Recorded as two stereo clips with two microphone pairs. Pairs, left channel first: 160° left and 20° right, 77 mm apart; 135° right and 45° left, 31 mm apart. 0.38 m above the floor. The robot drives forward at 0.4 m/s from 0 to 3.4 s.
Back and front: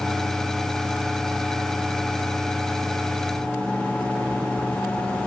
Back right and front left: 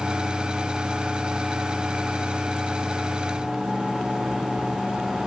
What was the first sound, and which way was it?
Only background noise.